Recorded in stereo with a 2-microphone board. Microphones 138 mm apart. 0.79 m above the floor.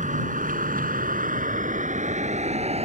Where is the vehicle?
70° right (ahead or behind); by 2.9 s 50° right (ahead or behind).